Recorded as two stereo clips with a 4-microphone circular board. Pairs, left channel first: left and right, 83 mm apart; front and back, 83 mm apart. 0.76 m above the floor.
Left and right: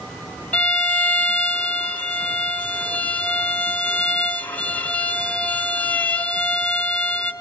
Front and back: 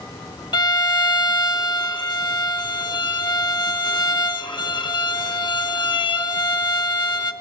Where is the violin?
20° left, 1.7 m.